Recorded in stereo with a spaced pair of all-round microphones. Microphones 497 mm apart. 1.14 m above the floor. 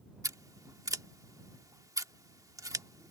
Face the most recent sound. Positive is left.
turn(degrees=-5)  # may be behind; listen again after turning